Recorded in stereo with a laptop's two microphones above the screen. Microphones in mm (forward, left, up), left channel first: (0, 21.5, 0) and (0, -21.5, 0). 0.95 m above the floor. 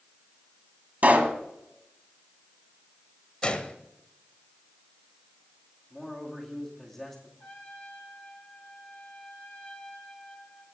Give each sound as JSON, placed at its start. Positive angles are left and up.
{"t": 1.0, "sound": "a pop", "side_deg": -45, "distance_m": 1.3}
{"t": 3.4, "sound": "a gunshot", "side_deg": 30, "distance_m": 0.9}
{"t": 5.9, "sound": "a man speaking", "side_deg": 5, "distance_m": 2.0}
{"t": 7.4, "sound": "a trumpet", "side_deg": 30, "distance_m": 4.5}